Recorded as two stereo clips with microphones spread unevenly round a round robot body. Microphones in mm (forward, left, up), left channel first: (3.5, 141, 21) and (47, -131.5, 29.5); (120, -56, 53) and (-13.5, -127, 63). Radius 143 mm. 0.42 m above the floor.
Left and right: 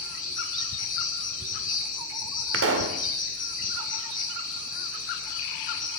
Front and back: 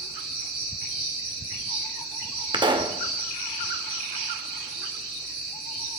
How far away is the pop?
About 1.8 m.